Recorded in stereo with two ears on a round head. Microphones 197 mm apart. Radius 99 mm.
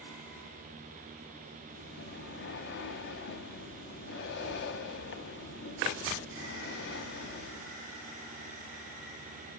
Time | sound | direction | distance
1.7 | breathing | 50° left (ahead or behind) | 1.2 m